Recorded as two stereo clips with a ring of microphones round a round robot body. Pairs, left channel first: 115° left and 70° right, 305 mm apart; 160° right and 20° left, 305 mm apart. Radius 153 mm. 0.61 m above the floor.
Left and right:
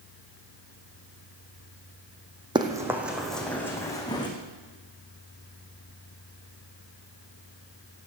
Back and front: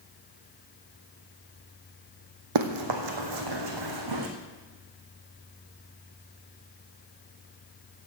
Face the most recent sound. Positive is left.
turn(degrees=35)